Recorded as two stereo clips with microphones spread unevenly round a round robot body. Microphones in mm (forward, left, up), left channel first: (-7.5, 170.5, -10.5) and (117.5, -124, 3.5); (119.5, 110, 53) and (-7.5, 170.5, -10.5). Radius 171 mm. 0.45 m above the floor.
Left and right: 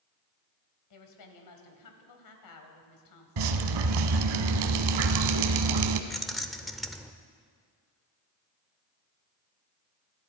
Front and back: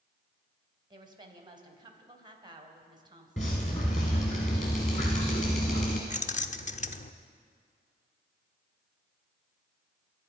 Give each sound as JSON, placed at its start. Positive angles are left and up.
{"t": 0.9, "sound": "a woman speaking", "azimuth_deg": 115, "distance_m": 2.5}
{"t": 3.4, "sound": "dripping", "azimuth_deg": -90, "distance_m": 1.0}
{"t": 6.1, "sound": "keys jangling", "azimuth_deg": 25, "distance_m": 0.9}